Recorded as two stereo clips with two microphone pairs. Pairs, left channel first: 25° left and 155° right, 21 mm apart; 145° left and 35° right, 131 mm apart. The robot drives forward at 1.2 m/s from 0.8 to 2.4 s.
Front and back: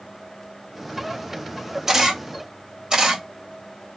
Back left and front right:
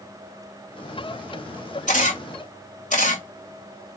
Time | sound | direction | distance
1.9 | a camera shutter | 140° left | 2 m